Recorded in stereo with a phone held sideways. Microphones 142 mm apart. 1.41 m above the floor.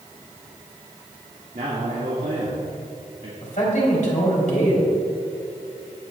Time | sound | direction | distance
1.5 | a man speaking | 60° right (ahead or behind) | 1.8 m
3.4 | a man speaking | 65° left (ahead or behind) | 3.5 m